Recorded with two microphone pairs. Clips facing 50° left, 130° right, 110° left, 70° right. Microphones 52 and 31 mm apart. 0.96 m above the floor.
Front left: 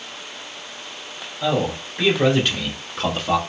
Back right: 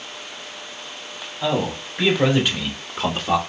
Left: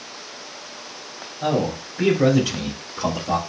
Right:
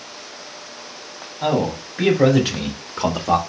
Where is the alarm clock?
No alarm clock in this recording.